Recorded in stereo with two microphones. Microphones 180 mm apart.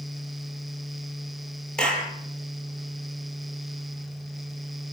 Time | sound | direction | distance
1.8 | a clap | 5° left (ahead or behind) | 5.5 m